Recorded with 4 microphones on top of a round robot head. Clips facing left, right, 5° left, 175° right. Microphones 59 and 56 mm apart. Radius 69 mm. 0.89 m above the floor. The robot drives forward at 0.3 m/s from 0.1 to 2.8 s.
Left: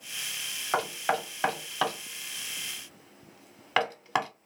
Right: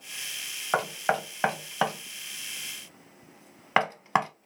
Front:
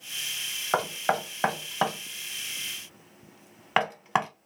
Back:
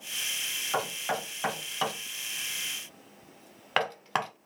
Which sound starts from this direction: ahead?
Knocking, at 0.7 s.